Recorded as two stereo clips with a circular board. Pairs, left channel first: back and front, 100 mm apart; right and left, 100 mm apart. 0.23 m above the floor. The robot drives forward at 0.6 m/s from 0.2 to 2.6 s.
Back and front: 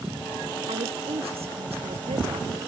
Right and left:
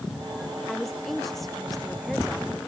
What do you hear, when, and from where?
0.7 s a woman speaking: straight ahead